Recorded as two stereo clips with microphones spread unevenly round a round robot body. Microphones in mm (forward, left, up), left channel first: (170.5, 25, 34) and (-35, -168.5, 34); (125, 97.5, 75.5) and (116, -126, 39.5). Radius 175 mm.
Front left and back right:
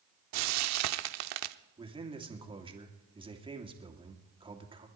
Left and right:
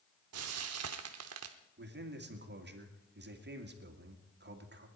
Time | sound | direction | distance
0.3 | frying | 130° right | 0.7 m
1.8 | a man speaking | 65° right | 2.5 m